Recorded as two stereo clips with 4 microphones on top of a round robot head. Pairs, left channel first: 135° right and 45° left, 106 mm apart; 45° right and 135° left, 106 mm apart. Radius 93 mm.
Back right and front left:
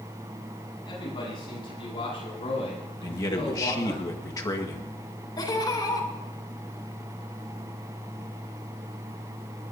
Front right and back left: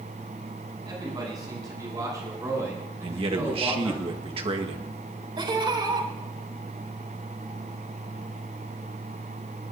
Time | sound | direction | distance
0.8 | a man speaking | 175° right | 9.5 m
3.0 | a man speaking | 170° left | 1.7 m
5.4 | laughter | 175° left | 4 m